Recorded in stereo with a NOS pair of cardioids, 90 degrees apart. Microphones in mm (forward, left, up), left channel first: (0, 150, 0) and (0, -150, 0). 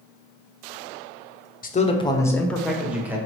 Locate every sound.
1.6 s a man speaking: 30° left, 0.9 m; by 3.2 s 5° right, 1.6 m